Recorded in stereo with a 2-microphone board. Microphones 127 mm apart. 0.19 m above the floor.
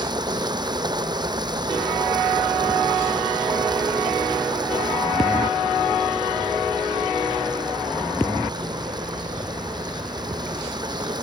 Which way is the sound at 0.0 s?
35° right (ahead or behind).